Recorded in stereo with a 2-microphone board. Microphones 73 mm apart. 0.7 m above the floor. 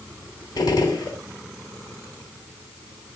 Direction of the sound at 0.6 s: 65° left (ahead or behind).